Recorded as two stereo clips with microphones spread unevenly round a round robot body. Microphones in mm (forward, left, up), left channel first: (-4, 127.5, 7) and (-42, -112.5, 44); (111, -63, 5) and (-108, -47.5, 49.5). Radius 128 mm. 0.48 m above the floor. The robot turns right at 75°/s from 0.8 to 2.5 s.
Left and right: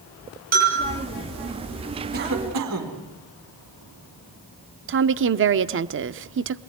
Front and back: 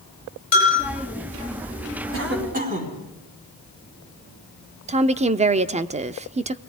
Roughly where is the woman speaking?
Behind right.